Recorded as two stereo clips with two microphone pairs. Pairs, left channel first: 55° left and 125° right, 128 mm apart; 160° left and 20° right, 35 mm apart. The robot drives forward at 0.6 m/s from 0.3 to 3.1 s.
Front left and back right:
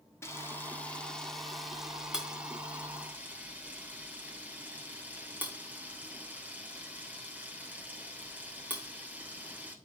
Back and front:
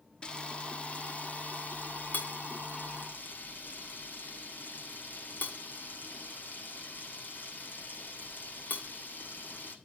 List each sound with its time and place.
0.2 s a camera shutter: 115° left, 1.3 m; by 9.8 s 160° left, 2.5 m